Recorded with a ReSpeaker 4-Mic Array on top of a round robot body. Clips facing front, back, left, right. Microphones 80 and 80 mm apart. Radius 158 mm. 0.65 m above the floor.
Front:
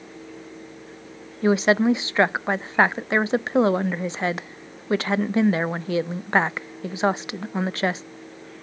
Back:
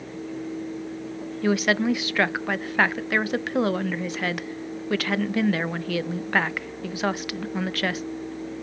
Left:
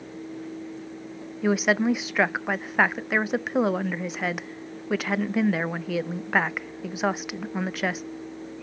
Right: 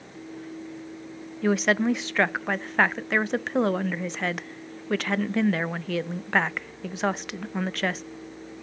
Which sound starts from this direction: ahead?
A woman speaking, at 1.4 s.